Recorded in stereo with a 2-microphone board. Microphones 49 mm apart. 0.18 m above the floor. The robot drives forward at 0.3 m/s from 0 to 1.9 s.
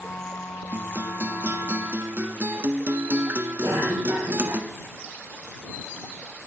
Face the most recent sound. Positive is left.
turn(degrees=-60)  # may be behind; listen again after turning